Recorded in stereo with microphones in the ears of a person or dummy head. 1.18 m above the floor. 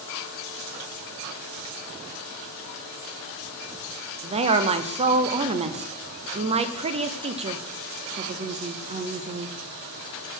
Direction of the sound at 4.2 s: 35° right (ahead or behind).